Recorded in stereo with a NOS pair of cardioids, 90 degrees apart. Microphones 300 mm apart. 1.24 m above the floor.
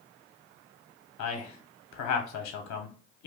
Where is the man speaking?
65° left, 0.7 m.